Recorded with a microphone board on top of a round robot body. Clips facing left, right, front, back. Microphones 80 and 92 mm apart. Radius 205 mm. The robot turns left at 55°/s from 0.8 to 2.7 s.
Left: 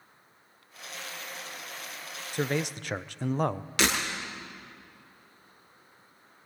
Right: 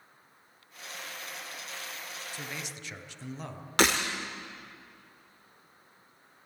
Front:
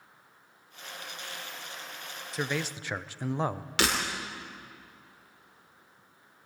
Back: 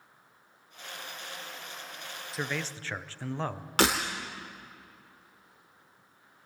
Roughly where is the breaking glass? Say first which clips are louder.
Right 3 dB, back 4 dB; behind right.